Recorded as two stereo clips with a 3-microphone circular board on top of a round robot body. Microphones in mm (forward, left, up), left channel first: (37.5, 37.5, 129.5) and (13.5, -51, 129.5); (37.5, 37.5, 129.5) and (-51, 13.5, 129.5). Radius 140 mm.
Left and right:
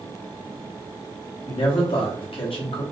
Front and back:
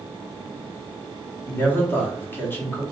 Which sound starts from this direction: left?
A man speaking, at 1.5 s.